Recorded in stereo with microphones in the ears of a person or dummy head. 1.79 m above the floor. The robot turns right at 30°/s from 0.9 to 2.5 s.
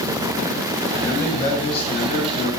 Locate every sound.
1.0 s a man speaking: 5° left, 9 m; by 2.5 s 50° left, 9 m